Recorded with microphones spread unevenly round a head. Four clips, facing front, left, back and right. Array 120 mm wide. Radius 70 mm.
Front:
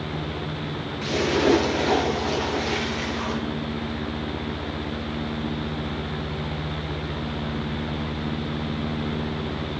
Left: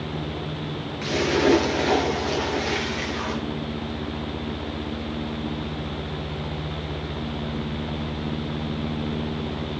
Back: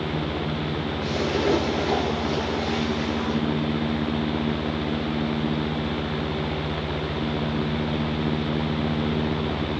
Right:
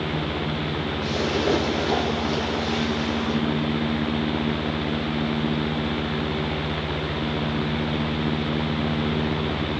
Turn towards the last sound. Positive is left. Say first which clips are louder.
# left 4 dB, front 4 dB
turn(degrees=80)